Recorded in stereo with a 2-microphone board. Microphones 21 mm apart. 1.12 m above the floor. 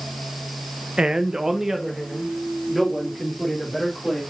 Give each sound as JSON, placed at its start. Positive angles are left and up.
{"t": 1.0, "sound": "a man speaking", "side_deg": -45, "distance_m": 0.8}